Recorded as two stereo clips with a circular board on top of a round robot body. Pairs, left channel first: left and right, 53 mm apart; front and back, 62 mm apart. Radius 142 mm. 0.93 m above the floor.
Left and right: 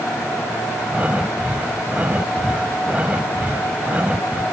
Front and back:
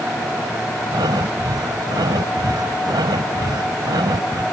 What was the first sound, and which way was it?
Breathing, 160° right.